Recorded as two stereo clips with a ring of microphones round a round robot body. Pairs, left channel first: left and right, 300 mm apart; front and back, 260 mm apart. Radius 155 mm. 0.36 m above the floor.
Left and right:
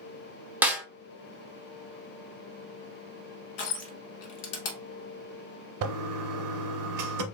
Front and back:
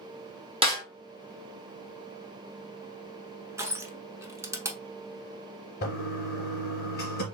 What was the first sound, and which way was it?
A snare drum, 165° right.